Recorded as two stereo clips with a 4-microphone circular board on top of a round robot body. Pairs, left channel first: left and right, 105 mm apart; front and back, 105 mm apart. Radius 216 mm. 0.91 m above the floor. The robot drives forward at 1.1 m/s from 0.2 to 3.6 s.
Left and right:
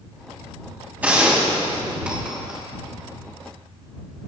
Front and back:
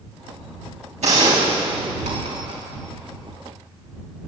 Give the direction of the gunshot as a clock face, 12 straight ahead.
6 o'clock.